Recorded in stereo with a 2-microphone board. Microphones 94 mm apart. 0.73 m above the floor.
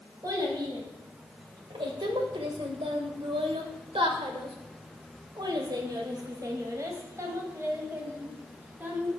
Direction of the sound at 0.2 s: 50° right (ahead or behind).